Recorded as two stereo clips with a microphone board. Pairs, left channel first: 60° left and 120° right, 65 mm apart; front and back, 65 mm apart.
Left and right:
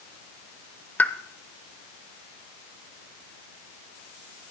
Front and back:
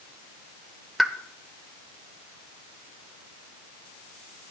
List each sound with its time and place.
1.0 s a pop: 95° left, 0.6 m